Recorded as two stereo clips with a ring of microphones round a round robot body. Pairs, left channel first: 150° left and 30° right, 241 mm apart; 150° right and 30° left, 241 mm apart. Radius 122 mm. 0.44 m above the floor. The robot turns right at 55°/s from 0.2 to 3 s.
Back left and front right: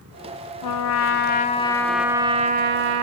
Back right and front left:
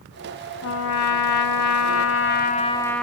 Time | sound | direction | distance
0.6 | a trumpet | 165° left | 0.6 m